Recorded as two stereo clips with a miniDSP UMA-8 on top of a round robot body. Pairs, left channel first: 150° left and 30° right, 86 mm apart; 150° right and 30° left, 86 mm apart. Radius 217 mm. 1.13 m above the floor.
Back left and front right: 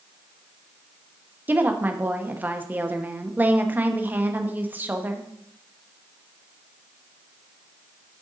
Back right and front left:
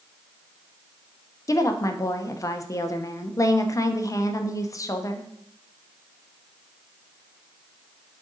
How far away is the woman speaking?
About 1.0 m.